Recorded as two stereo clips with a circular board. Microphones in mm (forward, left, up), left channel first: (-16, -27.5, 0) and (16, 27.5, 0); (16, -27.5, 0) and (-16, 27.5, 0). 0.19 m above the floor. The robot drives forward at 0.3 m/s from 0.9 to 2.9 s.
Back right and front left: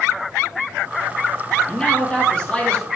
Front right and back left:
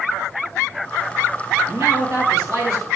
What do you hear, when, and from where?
1.7 s a man speaking: 165° left, 4.5 m